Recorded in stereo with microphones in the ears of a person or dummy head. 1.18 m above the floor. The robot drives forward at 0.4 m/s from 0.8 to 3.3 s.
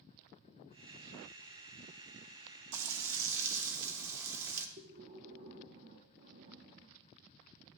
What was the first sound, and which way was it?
Frying, 85° right.